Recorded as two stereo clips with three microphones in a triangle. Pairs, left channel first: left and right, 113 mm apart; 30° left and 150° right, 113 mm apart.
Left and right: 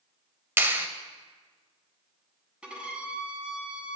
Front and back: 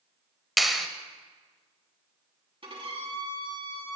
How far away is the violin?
About 2 m.